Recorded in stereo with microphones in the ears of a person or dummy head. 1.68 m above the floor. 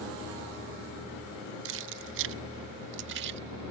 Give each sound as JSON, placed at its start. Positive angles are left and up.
{"t": 1.6, "sound": "keys jangling", "side_deg": -65}